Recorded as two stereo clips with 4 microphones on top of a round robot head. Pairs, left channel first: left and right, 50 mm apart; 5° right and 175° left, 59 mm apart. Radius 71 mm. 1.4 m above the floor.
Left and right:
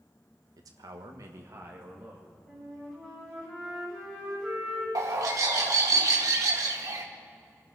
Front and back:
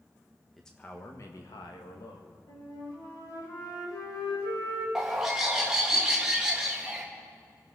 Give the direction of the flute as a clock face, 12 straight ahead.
12 o'clock.